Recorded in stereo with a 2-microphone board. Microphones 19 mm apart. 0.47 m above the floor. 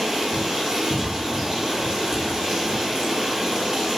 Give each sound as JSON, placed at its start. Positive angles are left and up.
{"t": 0.0, "sound": "running water", "side_deg": -35, "distance_m": 1.7}